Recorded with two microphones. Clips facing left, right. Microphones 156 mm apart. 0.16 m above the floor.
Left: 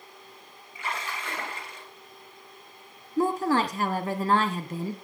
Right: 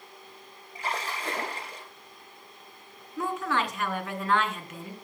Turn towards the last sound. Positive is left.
turn(degrees=35)  # may be behind; listen again after turning